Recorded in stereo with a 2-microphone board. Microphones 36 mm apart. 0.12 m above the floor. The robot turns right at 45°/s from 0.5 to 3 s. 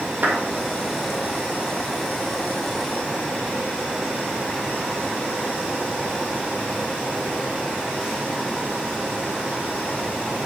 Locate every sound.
0.2 s a clap: 60° right (ahead or behind), 3 m